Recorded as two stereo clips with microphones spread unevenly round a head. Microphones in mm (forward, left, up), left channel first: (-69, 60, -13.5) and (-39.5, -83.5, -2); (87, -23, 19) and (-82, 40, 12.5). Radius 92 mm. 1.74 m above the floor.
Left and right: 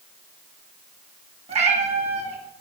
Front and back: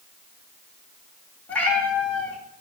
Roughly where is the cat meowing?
Right.